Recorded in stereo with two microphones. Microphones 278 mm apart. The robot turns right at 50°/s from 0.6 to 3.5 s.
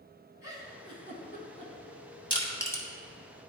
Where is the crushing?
20° left (ahead or behind), 1.2 m; by 2.8 s 5° left (ahead or behind), 1.2 m.